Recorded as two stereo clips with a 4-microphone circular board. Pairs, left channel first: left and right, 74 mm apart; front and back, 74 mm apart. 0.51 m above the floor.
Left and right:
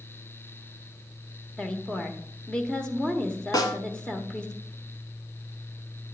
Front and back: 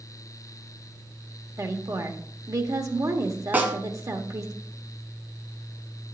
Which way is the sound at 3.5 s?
115° left.